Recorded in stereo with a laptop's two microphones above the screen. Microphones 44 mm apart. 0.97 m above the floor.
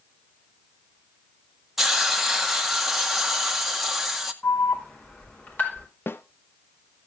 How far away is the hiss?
About 1.5 m.